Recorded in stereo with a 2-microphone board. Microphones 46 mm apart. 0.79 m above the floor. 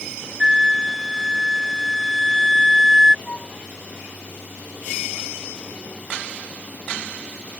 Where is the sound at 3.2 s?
35° left (ahead or behind).